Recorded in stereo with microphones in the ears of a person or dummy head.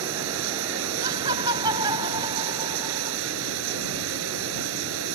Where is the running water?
70° right (ahead or behind).